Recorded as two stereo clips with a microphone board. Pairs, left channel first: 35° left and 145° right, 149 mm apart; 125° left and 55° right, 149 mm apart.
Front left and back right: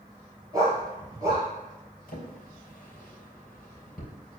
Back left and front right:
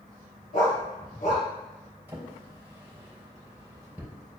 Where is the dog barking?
150° left, 2.5 m.